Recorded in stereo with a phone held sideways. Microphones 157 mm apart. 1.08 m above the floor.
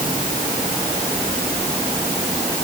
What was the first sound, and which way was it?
Only background noise.